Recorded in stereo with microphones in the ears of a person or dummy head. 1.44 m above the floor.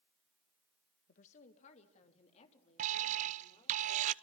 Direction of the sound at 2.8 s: 40° right (ahead or behind).